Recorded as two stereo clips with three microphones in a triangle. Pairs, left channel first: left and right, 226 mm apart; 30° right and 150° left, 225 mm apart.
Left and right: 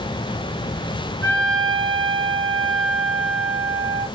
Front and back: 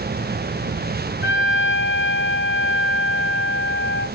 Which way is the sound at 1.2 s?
60° right.